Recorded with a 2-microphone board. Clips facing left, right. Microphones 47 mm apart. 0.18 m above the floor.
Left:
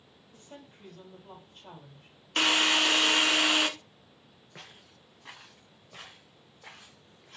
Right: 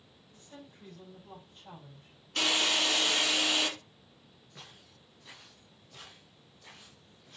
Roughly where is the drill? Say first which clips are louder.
Left 4 dB; left.